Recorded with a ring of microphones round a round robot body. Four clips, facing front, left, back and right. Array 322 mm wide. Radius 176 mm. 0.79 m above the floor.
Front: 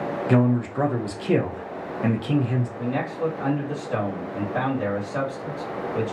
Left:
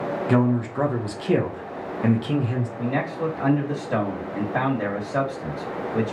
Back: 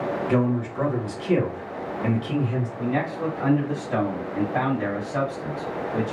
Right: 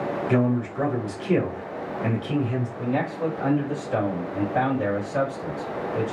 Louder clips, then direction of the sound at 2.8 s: Even, back 2 dB; 95° left.